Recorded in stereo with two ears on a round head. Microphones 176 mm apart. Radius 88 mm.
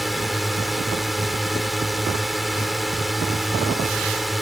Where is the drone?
Centre (ahead or behind).